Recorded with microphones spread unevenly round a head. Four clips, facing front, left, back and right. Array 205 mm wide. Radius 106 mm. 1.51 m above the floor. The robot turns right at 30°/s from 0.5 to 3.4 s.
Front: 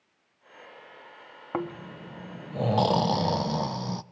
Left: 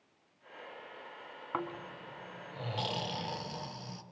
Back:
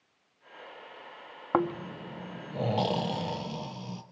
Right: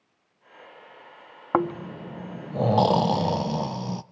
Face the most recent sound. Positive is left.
turn(degrees=-60)